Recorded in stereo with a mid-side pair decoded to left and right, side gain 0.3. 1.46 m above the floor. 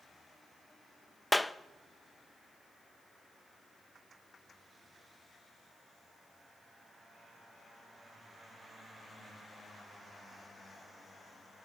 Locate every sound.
1.3 s a clap: 10° left, 0.7 m